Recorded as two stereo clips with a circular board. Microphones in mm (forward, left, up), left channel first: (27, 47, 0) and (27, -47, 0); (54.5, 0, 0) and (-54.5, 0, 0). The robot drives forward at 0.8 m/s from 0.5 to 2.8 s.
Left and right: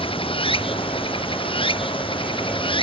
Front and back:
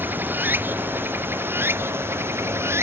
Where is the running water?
110° left; by 2.8 s 115° left.